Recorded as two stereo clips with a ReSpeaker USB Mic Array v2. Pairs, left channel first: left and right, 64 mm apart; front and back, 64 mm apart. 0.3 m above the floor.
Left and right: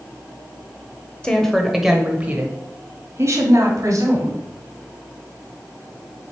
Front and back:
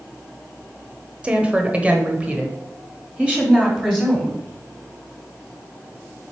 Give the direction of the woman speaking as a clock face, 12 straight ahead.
7 o'clock.